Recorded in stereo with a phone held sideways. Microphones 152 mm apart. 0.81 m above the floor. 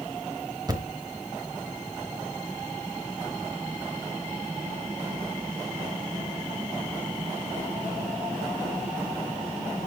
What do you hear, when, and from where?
0.7 s a thud: 25° right (ahead or behind), 1.1 m